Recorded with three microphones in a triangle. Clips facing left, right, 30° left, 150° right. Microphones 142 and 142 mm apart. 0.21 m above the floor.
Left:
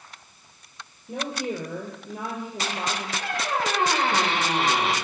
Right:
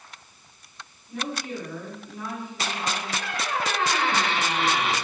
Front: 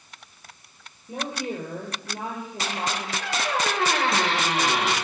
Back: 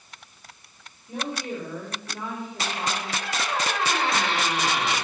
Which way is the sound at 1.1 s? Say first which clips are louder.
Left 3 dB, front 1 dB; 95° left.